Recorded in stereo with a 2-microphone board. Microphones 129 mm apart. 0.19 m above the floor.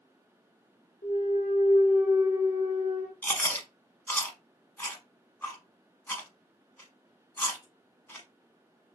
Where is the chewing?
15° left (ahead or behind), 0.8 m.